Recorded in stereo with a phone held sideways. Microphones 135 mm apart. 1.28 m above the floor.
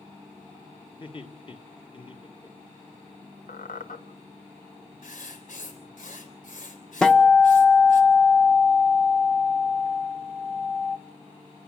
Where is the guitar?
5° left (ahead or behind), 0.9 m.